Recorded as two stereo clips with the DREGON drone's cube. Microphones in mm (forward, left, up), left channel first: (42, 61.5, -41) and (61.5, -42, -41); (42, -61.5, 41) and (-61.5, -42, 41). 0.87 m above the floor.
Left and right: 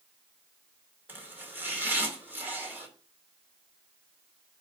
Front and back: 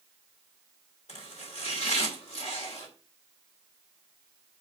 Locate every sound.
1.1 s chopping: 10° right, 2.5 m